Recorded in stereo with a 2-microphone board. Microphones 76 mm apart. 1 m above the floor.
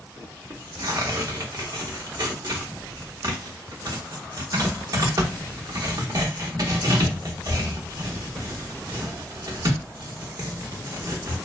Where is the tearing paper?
50° right (ahead or behind), 0.8 m.